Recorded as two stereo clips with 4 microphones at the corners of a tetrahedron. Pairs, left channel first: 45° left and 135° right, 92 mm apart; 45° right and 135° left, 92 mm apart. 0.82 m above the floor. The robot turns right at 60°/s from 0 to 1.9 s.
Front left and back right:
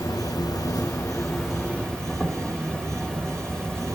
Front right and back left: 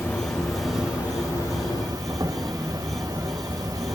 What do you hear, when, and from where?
0.0 s an insect: 10° left, 2.0 m; by 4.0 s 125° left, 2.0 m